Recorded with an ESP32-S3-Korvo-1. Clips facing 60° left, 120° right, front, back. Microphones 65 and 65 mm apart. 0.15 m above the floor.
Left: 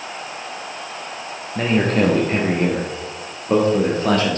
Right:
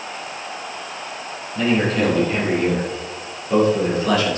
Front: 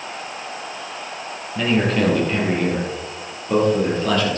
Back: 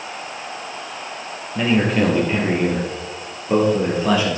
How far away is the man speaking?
About 4 m.